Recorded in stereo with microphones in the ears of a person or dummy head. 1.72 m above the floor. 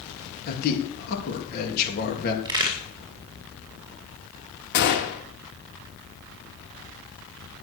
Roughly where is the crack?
Right.